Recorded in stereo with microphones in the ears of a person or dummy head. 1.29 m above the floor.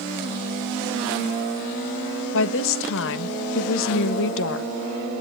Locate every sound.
2.3 s a woman speaking: 75° left (ahead or behind), 1.4 m